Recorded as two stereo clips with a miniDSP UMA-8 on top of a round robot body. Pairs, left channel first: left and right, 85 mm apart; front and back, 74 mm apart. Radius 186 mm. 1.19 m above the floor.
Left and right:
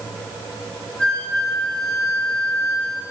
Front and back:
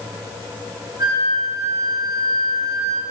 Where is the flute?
170° left, 3 m.